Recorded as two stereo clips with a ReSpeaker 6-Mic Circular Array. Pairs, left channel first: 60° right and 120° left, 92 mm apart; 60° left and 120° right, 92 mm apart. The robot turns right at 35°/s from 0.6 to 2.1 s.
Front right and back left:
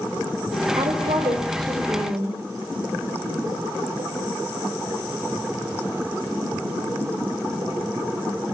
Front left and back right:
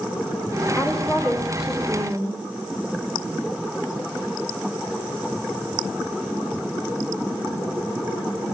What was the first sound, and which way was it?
A woman speaking, 130° left.